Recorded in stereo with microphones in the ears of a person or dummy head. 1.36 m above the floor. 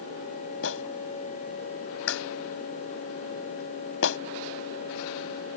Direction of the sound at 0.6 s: 90° left.